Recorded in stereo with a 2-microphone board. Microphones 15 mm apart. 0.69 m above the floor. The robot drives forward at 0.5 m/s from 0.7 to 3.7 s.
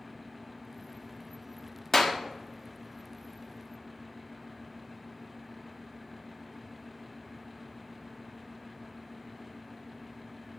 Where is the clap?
25° left (ahead or behind), 1.3 m.